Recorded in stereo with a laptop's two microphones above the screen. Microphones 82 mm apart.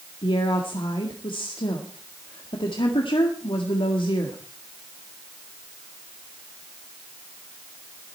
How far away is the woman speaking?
About 1.7 m.